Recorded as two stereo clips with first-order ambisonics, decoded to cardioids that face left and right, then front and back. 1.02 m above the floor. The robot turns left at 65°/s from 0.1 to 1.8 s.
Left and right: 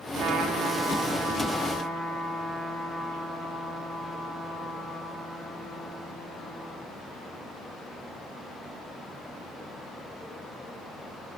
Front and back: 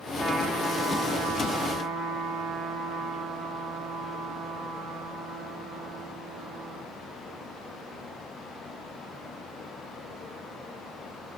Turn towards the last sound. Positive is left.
turn(degrees=175)